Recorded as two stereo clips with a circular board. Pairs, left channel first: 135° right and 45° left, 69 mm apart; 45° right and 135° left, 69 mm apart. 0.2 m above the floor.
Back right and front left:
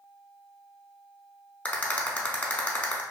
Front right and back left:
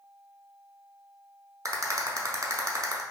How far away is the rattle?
About 0.6 m.